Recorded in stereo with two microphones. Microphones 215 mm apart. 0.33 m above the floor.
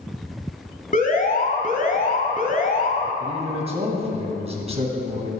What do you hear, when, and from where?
0.9 s an alarm: 40° left (ahead or behind), 2 m
3.2 s a man speaking: 30° right (ahead or behind), 3 m